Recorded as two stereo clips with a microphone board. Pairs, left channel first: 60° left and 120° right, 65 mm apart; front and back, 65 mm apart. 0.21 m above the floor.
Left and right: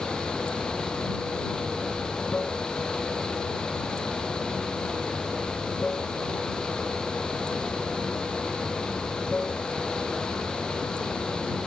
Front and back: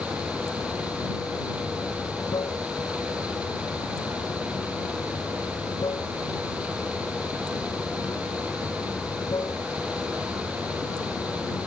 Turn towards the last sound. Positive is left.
turn(degrees=-15)